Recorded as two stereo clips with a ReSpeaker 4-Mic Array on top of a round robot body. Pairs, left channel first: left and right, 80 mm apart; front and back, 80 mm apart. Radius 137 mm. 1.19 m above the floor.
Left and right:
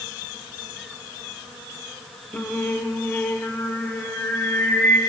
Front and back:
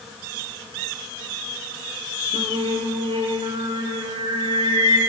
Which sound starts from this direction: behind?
Singing, at 2.3 s.